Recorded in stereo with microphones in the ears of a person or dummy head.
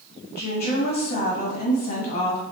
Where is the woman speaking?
50° left (ahead or behind), 1.4 m.